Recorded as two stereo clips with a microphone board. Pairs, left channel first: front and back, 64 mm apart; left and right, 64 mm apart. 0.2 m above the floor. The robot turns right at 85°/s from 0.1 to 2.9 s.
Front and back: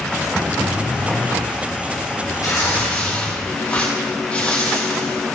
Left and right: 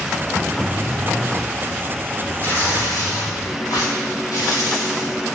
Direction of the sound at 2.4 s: 30° left.